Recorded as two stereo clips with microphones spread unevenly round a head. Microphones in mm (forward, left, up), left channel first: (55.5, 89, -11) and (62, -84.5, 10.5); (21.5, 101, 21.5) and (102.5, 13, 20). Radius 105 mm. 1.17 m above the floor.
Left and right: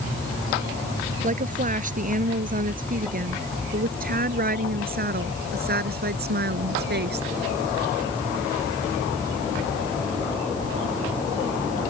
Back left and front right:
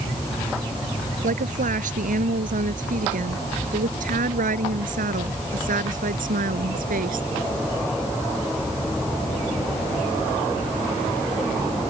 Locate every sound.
1.2 s a woman speaking: 45° right; by 7.3 s 65° right